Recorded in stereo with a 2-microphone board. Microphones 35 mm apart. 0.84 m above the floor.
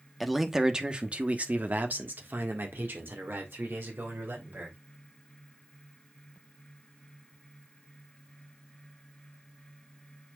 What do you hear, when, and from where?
0.2 s a man speaking: centre (ahead or behind), 1.1 m; by 4.8 s 85° right, 3 m